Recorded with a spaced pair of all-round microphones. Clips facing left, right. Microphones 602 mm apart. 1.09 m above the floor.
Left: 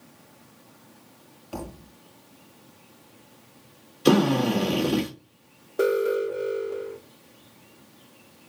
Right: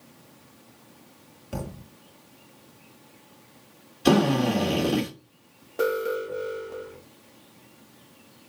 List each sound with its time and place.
1.5 s a thud: 45° right (ahead or behind), 1.2 m
4.0 s a drill: 15° right (ahead or behind), 3 m
5.8 s an alarm: 25° right (ahead or behind), 1.8 m